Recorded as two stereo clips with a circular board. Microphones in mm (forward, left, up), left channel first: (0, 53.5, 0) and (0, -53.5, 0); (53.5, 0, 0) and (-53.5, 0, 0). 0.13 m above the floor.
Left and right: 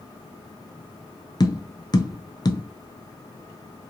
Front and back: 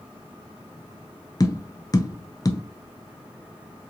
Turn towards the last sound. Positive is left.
turn(degrees=50)